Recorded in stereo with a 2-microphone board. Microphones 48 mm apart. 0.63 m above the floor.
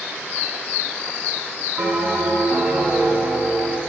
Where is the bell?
60° right (ahead or behind), 3 m.